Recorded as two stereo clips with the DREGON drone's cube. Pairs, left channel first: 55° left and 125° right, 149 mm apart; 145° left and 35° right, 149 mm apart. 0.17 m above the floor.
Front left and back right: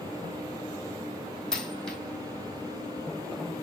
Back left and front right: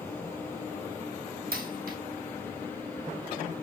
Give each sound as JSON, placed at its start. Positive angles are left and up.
{"t": 1.5, "sound": "a dropped coin", "azimuth_deg": -30, "distance_m": 1.4}